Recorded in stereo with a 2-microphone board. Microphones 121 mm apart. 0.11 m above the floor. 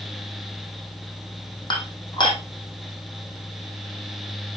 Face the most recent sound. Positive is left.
turn(degrees=40)  # may be behind; listen again after turning